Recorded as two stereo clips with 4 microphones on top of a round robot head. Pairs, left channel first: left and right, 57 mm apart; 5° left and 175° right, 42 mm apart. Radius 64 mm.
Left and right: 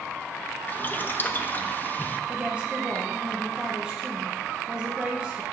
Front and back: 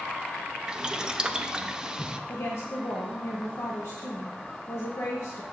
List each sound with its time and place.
0.7 s boiling: 120° left, 0.6 m
2.3 s a woman speaking: 20° right, 0.8 m